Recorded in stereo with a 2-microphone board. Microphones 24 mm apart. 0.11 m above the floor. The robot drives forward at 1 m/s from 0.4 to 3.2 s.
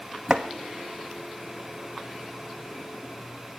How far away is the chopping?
About 1.3 m.